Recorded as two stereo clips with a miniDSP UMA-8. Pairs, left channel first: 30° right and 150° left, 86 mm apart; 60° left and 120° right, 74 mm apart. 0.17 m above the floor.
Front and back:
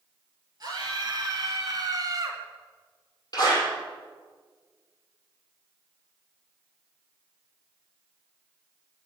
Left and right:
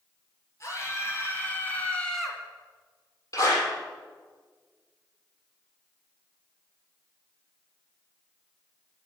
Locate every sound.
0.6 s a scream: 110° left, 4 m; by 2.4 s 155° left, 1.9 m
3.3 s a clap: 20° left, 5 m